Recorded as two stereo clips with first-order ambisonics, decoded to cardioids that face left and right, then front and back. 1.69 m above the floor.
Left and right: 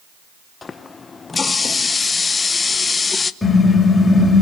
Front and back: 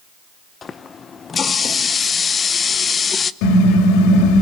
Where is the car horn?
10° left, 4.5 m.